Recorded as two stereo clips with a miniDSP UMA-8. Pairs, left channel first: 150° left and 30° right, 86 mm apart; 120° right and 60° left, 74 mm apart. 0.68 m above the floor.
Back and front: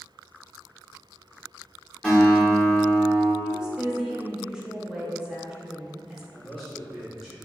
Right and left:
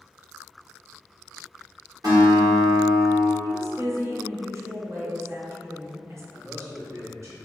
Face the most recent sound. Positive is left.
turn(degrees=65)